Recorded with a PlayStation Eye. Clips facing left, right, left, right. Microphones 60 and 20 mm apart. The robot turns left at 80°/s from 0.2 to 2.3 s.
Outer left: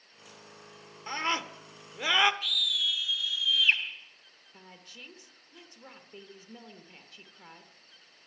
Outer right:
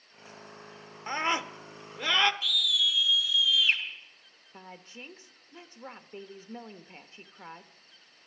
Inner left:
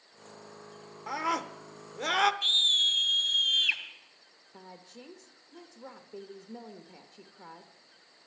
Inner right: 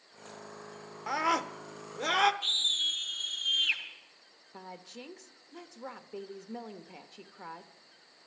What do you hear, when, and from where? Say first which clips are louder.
1.1 s a scream: outer right 2 dB, inner right 2 dB; 25° right (ahead or behind), 0.8 m; by 2.3 s 15° left (ahead or behind), 0.8 m
2.4 s a scream: outer right 3 dB, inner left 5 dB; 45° left (ahead or behind), 3.5 m
4.5 s a woman speaking: outer right 5 dB, inner right 3 dB; 30° right (ahead or behind), 0.9 m